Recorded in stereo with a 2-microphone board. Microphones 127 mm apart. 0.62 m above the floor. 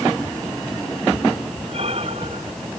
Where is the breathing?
50° right (ahead or behind).